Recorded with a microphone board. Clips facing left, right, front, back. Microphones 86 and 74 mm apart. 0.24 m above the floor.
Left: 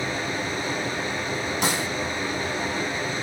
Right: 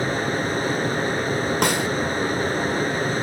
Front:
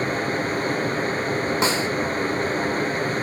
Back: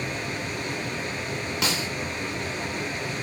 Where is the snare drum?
60° right, 2.5 m.